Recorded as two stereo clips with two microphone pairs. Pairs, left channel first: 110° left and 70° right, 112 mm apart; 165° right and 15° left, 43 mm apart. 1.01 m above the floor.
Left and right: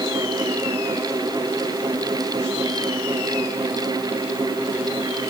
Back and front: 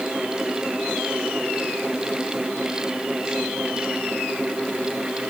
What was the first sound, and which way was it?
Only background noise.